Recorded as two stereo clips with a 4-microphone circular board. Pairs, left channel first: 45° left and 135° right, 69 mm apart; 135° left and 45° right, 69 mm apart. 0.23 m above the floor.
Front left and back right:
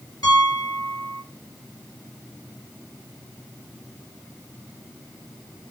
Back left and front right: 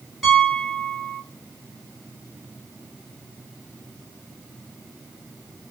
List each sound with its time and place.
0.2 s a piano: 45° left, 1.7 m